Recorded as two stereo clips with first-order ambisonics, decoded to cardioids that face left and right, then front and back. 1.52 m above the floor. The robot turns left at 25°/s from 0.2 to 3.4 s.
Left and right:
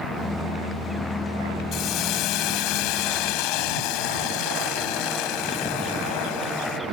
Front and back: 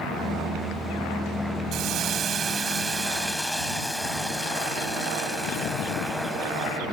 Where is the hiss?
130° left; by 6.8 s 90° left.